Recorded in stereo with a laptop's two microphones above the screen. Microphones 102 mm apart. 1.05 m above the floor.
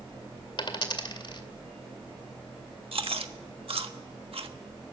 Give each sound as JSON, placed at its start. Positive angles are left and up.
{"t": 0.6, "sound": "a dropped coin", "side_deg": 50, "distance_m": 2.0}
{"t": 2.9, "sound": "chewing", "side_deg": -65, "distance_m": 1.4}